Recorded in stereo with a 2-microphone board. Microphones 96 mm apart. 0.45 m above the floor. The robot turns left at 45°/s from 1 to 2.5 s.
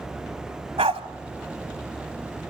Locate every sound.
0.8 s a dog barking: 80° right, 1.2 m